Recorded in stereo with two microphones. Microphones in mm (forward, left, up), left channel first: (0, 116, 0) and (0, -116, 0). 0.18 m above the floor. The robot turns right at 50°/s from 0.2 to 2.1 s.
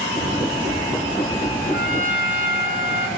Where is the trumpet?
Centre (ahead or behind), 2 m; by 3.1 s 10° right (ahead or behind), 2 m.